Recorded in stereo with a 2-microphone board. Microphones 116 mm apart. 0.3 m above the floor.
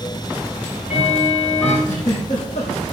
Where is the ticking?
60° left (ahead or behind), 6 m.